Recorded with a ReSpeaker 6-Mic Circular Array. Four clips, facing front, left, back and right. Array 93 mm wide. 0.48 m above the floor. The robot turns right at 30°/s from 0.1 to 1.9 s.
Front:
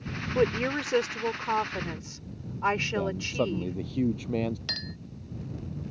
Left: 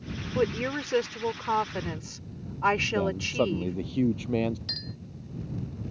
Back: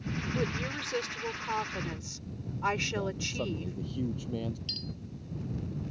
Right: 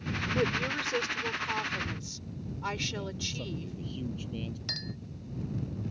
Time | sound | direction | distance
0.3 | a woman speaking | 25° left | ?
3.0 | a man speaking | 60° left | ?
4.7 | a clink | 10° right | ?